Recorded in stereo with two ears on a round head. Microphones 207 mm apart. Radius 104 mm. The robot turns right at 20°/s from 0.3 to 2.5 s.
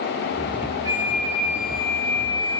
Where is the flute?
15° right, 5 m; by 2.6 s 15° left, 5 m.